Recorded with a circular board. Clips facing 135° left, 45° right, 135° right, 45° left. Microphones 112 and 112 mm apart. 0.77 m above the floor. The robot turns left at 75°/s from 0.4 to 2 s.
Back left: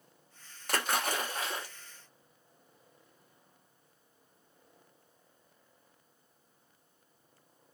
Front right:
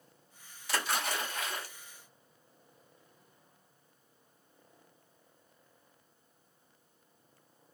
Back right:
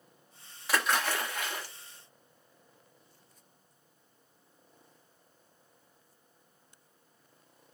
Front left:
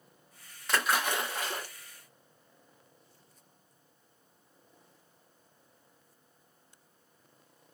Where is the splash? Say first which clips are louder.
Back left 2 dB, even; 145° left, 1.0 m; by 1.7 s 70° left, 1.0 m.